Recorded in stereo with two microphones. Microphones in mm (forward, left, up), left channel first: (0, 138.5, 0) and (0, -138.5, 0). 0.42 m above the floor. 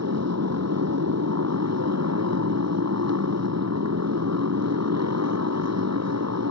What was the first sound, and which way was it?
A motorcycle, 65° right (ahead or behind).